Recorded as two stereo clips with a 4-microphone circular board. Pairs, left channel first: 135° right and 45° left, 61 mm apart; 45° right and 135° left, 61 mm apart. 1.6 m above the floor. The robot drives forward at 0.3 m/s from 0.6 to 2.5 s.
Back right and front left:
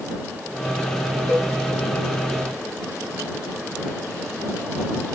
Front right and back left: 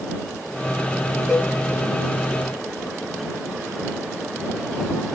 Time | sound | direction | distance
1.3 | a cowbell | 150° right | 0.9 m